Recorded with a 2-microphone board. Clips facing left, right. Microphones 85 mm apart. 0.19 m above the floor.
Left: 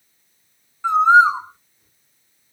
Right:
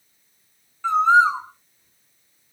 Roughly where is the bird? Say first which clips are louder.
Left 3 dB; centre.